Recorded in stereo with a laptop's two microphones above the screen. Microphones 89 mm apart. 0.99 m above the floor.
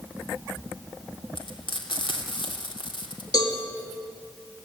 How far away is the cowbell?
About 2 m.